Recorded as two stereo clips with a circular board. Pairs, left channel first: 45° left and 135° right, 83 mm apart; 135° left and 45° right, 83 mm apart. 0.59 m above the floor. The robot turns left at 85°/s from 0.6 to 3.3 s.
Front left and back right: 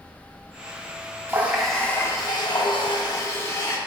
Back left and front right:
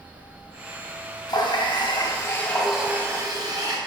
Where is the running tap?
165° left, 0.5 m; by 3.8 s 5° right, 0.5 m.